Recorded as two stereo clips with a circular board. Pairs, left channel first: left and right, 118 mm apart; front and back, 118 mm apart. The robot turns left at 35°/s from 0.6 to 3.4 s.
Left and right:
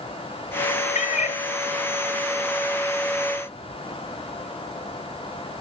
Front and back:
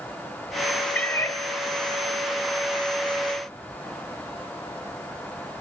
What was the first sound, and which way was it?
A cat meowing, 80° left.